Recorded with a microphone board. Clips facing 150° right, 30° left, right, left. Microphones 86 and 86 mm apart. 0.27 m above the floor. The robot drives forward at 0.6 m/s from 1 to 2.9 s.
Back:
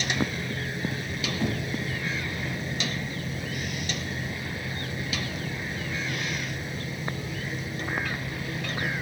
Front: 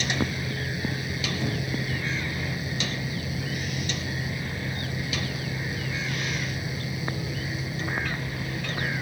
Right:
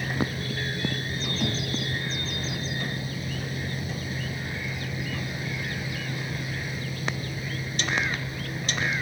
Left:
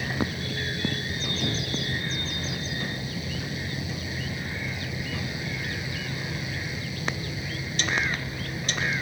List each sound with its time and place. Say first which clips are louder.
1.4 s knocking: back 3 dB, right 2 dB; 120° right, 2 m; by 1.7 s 125° right, 2 m